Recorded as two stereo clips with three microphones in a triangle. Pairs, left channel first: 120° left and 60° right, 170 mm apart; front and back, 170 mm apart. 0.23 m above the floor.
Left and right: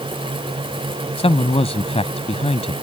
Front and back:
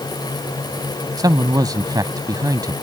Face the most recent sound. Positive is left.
turn(degrees=130)